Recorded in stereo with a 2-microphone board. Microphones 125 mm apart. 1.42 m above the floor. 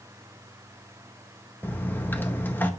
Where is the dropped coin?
15° left (ahead or behind), 0.7 m.